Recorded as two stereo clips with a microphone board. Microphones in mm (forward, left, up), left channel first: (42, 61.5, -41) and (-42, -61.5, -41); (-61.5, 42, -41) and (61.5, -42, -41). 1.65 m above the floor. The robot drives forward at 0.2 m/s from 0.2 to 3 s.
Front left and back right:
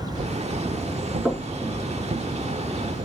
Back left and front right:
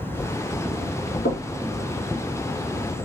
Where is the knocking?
140° left, 3.5 m.